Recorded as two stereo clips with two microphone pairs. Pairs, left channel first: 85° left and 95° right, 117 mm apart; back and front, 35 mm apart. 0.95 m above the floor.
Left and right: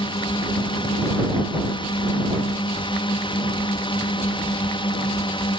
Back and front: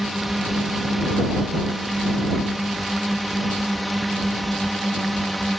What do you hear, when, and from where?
0.0 s a drone: 85° left; by 5.6 s 90° left